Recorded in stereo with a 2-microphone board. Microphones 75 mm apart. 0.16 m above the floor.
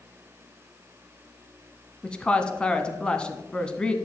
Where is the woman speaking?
15° left (ahead or behind), 1.1 m.